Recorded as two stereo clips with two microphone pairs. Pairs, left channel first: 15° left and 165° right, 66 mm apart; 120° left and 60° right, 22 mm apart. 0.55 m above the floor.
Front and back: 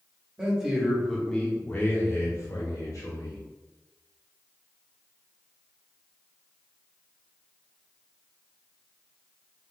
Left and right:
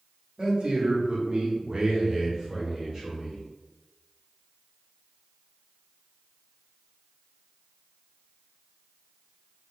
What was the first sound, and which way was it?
A man speaking, 90° right.